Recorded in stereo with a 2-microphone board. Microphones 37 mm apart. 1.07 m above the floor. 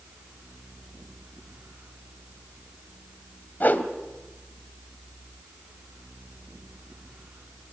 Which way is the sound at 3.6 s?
60° left (ahead or behind).